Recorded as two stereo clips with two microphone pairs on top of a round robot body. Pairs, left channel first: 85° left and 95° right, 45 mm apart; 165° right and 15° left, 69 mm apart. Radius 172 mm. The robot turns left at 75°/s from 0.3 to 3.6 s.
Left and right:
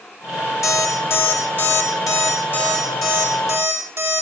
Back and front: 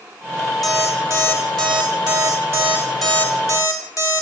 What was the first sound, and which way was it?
An alarm clock, 100° left.